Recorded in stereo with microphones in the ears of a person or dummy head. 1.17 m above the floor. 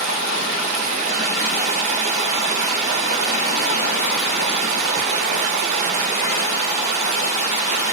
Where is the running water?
40° right (ahead or behind), 1.2 m.